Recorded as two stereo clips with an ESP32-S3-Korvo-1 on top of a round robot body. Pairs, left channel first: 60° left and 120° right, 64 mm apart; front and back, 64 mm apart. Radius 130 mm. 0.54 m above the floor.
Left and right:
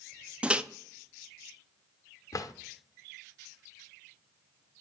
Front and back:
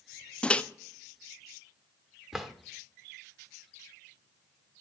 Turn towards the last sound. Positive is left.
turn(degrees=95)